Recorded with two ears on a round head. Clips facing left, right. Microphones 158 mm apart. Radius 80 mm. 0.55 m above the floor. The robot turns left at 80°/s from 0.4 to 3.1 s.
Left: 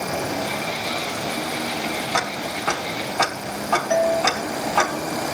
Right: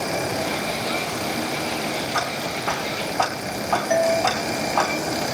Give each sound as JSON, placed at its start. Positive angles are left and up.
{"t": 2.1, "sound": "ticking", "side_deg": 80, "distance_m": 3.5}
{"t": 3.9, "sound": "a doorbell", "side_deg": -15, "distance_m": 3.0}